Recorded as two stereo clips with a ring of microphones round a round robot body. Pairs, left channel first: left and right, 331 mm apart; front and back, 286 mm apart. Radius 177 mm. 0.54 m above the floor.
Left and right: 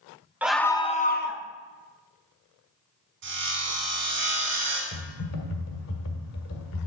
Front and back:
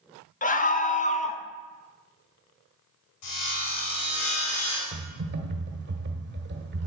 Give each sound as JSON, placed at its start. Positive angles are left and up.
{"t": 0.4, "sound": "a scream", "azimuth_deg": -10, "distance_m": 0.9}
{"t": 3.2, "sound": "sawing", "azimuth_deg": -35, "distance_m": 4.0}
{"t": 4.9, "sound": "typing on a keyboard", "azimuth_deg": 130, "distance_m": 1.6}